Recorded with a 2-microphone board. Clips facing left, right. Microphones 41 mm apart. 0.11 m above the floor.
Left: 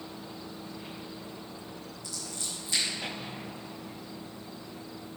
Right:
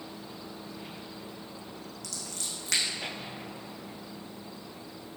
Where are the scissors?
75° right (ahead or behind), 3 m.